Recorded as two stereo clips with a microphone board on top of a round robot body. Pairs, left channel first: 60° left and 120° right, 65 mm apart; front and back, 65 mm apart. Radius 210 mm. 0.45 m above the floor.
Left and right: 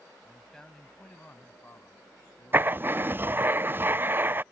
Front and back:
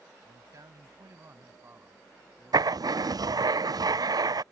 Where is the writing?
Straight behind.